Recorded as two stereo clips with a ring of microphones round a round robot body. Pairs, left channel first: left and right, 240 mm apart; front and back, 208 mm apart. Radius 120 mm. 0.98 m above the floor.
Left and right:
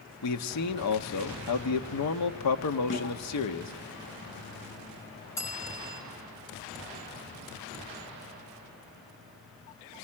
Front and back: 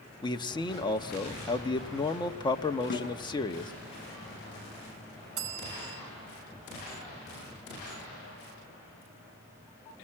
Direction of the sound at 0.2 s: 70° left.